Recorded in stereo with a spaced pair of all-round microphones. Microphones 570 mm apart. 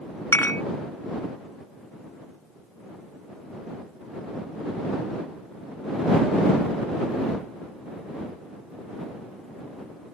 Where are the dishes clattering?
5° left (ahead or behind).